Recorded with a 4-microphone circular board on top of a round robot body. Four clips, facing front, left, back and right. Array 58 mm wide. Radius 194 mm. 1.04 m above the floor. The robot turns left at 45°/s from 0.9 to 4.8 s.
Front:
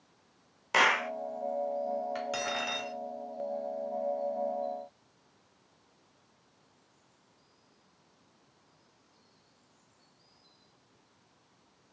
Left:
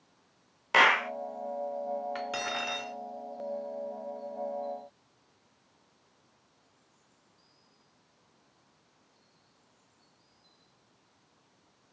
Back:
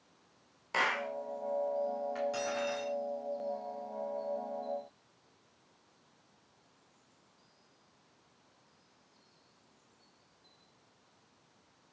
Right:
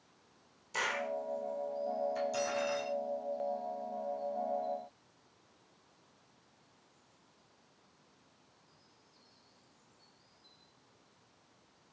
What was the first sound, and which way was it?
A clap, 70° left.